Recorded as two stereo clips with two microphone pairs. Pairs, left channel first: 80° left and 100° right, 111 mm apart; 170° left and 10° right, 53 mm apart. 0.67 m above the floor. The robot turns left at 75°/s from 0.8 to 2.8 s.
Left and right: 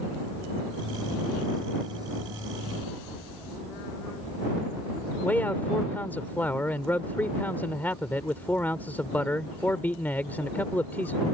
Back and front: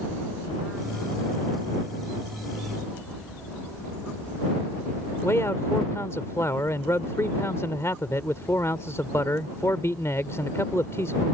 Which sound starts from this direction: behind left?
A man speaking, at 5.2 s.